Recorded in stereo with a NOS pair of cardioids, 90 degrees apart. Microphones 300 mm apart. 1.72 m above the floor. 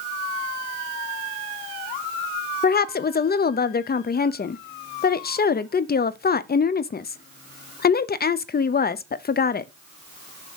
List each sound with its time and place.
2.6 s a woman speaking: 30° left, 0.8 m